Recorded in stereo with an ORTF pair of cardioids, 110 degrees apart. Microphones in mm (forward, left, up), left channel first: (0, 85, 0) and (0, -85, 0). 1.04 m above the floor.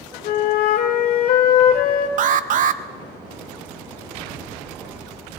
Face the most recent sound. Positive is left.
turn(degrees=-50)